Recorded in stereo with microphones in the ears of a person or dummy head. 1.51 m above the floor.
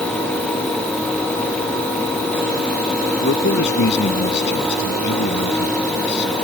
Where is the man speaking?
60° left (ahead or behind).